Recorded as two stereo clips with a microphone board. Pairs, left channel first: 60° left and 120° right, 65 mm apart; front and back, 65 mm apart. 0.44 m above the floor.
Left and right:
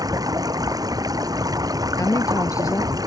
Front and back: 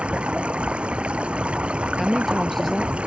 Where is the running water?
110° right.